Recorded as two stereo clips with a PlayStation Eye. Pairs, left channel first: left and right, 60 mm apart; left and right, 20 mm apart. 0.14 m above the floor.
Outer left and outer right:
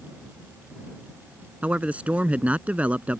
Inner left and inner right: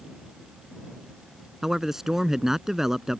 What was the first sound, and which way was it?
A man speaking, 25° right (ahead or behind).